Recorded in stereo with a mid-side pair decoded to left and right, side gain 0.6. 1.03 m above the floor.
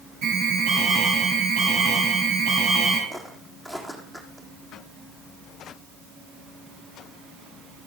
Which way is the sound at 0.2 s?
65° right.